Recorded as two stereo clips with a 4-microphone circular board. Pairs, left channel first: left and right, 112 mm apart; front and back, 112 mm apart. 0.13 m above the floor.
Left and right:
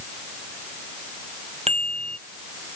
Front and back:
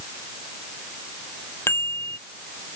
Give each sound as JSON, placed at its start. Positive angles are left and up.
{"t": 1.7, "sound": "a bicycle bell", "azimuth_deg": -65}